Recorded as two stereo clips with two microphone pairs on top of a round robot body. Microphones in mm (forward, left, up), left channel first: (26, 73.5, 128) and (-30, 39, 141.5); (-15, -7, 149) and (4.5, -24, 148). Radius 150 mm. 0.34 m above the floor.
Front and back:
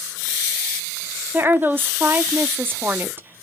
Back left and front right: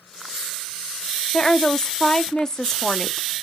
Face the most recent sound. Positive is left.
turn(degrees=170)